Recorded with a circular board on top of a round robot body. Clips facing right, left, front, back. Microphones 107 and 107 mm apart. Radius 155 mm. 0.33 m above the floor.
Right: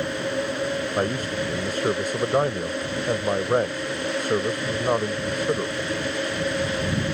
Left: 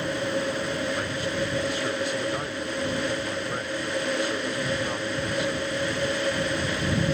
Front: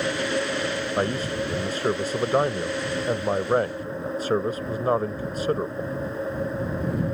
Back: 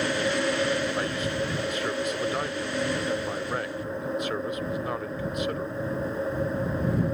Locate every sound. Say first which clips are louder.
1.0 s a man speaking: right 3 dB, front 3 dB; 50° right